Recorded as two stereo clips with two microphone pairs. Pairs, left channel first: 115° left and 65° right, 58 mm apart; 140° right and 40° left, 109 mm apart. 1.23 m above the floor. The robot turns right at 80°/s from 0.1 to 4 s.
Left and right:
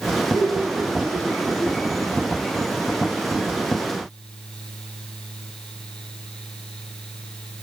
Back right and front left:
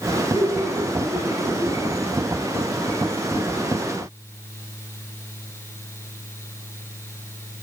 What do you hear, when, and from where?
0.3 s laughter: 135° right, 5.5 m; by 1.9 s 10° right, 5.5 m